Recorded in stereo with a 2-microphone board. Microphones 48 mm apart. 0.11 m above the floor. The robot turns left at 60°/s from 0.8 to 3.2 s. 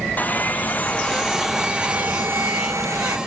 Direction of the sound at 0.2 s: 35° left.